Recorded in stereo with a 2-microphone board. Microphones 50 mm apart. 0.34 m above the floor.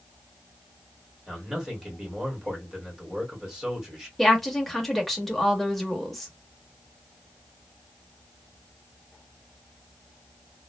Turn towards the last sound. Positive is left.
turn(degrees=5)  # may be behind; listen again after turning